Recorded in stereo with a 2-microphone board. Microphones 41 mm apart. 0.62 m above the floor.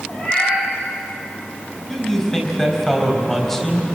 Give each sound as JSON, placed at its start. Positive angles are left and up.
{"t": 0.1, "sound": "a cat meowing", "side_deg": 30, "distance_m": 10.0}
{"t": 1.9, "sound": "a man speaking", "side_deg": 15, "distance_m": 4.5}